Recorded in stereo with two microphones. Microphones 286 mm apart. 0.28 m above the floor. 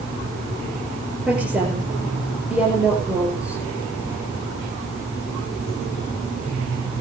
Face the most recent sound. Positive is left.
turn(degrees=-5)  # may be behind; listen again after turning